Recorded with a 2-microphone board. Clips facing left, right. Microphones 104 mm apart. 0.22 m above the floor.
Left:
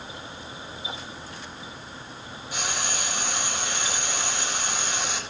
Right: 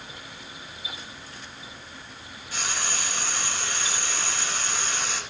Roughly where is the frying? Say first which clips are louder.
Left 1 dB; centre.